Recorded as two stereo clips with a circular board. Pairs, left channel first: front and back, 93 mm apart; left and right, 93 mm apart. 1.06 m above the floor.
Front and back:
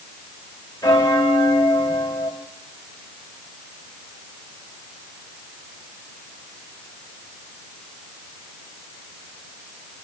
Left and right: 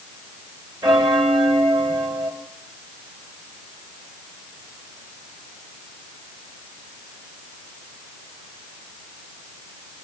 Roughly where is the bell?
Ahead right.